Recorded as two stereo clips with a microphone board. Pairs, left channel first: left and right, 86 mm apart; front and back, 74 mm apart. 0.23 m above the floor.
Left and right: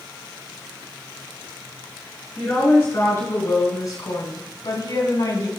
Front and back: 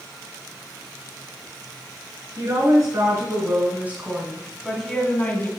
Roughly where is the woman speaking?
Behind left.